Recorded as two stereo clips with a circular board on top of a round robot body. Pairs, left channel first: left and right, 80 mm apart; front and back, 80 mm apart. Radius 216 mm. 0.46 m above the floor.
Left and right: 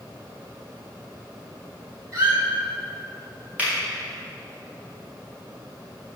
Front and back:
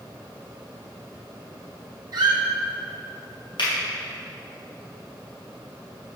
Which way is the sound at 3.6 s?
15° right.